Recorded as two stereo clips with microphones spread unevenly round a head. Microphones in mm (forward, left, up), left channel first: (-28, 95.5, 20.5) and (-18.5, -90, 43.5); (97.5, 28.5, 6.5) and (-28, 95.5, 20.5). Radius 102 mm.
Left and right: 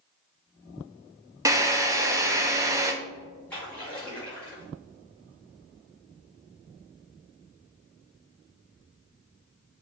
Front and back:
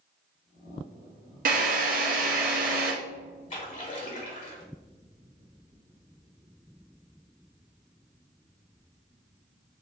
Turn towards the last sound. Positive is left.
turn(degrees=10)